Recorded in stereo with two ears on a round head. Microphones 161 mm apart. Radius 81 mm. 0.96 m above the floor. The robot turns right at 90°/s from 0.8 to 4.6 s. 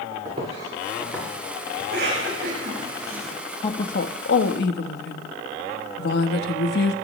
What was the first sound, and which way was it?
Footsteps, 30° right (ahead or behind).